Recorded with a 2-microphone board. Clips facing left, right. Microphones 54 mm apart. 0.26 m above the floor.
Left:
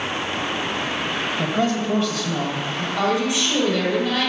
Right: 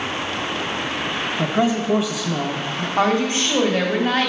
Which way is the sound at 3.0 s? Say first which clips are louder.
Right 3 dB; 40° right (ahead or behind).